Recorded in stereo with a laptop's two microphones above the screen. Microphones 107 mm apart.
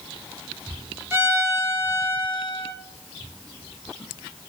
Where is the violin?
25° right (ahead or behind), 0.7 m.